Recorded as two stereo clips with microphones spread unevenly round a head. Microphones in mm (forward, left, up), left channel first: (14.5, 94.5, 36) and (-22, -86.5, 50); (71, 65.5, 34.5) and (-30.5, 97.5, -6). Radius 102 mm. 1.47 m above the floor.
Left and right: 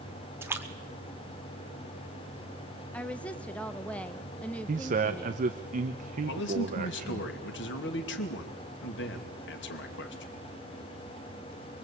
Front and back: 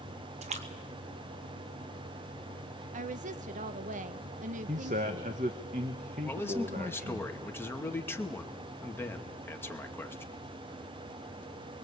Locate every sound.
0.4 s a splash: straight behind, 2.5 m
2.9 s a woman speaking: 165° left, 0.9 m
4.7 s a man speaking: 150° right, 1.1 m
6.2 s a man speaking: 55° left, 2.5 m